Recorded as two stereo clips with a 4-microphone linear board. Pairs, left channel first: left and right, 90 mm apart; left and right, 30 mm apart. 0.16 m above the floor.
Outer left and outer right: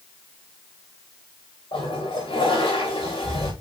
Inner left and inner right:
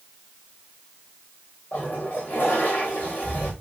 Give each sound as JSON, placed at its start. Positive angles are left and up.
{"t": 1.7, "sound": "a toilet flushing", "side_deg": 70, "distance_m": 4.0}